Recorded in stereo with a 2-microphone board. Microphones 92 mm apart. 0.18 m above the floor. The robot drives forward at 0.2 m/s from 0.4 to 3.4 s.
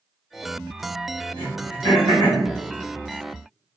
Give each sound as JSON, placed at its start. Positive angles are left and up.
{"t": 1.4, "sound": "throat clearing", "side_deg": -70, "distance_m": 1.7}